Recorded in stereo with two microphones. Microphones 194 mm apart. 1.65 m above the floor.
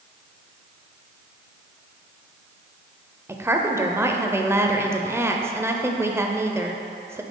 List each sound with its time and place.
3.3 s a woman speaking: 15° right (ahead or behind), 0.6 m